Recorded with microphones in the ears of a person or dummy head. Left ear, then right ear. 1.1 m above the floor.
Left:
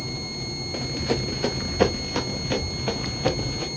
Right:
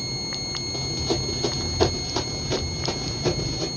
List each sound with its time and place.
0.7 s running footsteps: 40° left (ahead or behind), 1.3 m; by 3.7 s 25° left (ahead or behind), 2 m